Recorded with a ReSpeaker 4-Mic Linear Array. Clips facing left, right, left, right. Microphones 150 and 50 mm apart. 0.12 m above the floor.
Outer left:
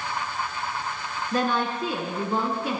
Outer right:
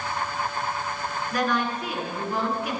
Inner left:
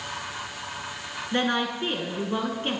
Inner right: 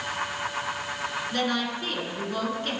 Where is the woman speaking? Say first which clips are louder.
Outer left 1 dB, inner left 5 dB; 30° left (ahead or behind), 1.2 m.